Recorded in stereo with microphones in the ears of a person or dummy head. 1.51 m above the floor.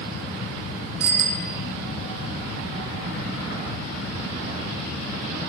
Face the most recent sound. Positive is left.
turn(degrees=-80)